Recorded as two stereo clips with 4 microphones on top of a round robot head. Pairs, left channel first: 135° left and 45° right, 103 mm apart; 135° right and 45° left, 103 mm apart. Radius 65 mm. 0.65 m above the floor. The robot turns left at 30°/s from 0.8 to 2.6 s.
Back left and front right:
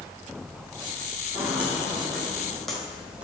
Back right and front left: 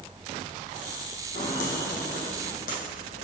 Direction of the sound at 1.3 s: 120° right.